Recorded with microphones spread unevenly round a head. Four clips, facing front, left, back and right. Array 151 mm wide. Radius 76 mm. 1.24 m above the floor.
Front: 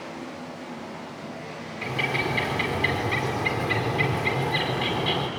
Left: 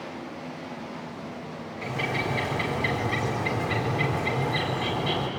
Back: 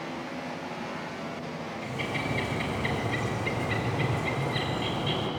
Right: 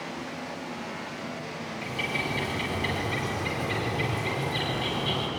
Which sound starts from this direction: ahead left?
A bird, at 1.8 s.